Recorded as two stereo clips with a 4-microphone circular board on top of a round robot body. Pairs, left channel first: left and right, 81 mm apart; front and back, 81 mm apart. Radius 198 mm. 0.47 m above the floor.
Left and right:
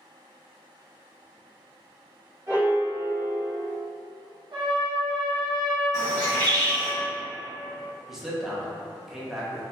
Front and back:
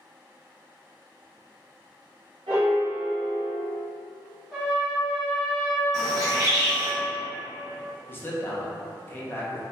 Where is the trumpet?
95° right, 1.2 m.